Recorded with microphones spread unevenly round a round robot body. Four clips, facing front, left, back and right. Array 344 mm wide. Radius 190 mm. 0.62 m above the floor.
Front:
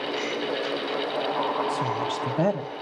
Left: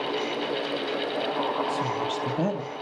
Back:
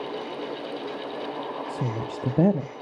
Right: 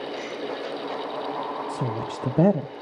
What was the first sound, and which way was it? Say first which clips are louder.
A woman speaking: left 2 dB, front 4 dB; 125° right.